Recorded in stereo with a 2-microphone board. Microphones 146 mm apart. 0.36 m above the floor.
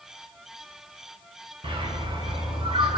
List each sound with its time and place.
1.6 s a bird: 40° right (ahead or behind), 0.7 m